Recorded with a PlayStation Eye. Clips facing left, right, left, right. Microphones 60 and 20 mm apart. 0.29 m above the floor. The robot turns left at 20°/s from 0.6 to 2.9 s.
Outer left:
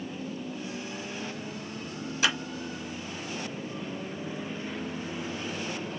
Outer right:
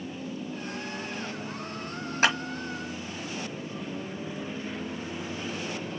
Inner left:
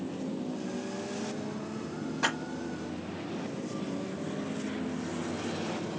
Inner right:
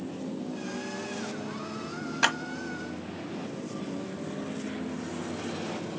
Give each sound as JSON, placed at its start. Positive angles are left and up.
{"t": 2.2, "sound": "a clap", "side_deg": -45, "distance_m": 1.5}